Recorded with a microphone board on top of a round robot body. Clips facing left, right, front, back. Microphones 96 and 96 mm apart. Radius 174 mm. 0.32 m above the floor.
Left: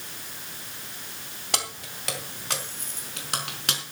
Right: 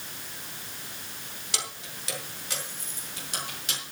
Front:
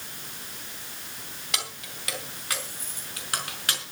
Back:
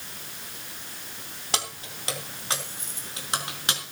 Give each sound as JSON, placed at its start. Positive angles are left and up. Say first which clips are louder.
{"t": 1.5, "sound": "keys jangling", "louder": "left 6 dB, back 4 dB", "azimuth_deg": 125, "distance_m": 3.0}